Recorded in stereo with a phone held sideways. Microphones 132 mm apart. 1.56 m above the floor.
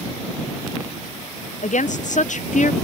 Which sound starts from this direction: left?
A woman speaking, at 1.6 s.